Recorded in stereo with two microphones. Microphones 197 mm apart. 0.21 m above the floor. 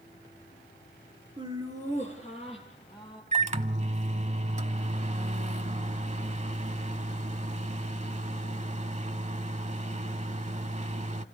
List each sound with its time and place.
1.4 s laughter: 25° right (ahead or behind), 3 m; by 3.2 s centre (ahead or behind), 5 m
3.3 s a microwave: 35° right (ahead or behind), 0.9 m